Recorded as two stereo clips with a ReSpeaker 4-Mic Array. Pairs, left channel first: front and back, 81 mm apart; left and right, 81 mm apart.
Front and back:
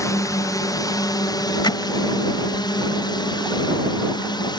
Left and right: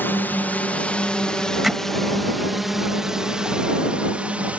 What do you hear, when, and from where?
0.0 s a drone: 30° left; by 4.6 s 15° right
1.6 s hammering: straight ahead